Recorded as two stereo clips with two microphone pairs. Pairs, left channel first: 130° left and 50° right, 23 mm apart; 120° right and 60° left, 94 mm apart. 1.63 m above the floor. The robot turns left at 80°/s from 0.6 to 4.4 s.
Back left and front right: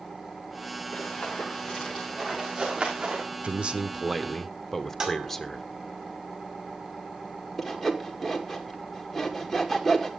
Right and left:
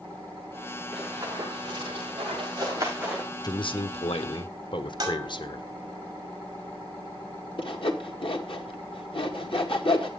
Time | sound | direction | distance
0.9 | running footsteps | 140° left | 8.5 m
3.4 | a man speaking | 75° right | 1.2 m
5.0 | dishes clattering | 10° left | 5 m
7.6 | sawing | 145° right | 2 m